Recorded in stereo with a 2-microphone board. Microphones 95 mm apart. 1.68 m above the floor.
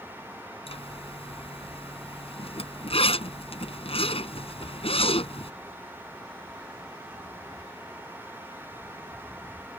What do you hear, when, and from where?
0.7 s a zipper: 85° left